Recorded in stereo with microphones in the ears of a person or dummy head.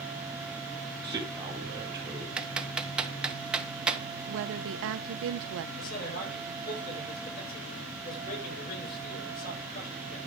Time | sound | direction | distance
1.0 | a man speaking | 20° right (ahead or behind) | 2.5 m
2.4 | typing on a keyboard | 5° right (ahead or behind) | 1.3 m
4.3 | a woman speaking | 65° right (ahead or behind) | 0.7 m
5.8 | a man speaking | 50° left (ahead or behind) | 7.5 m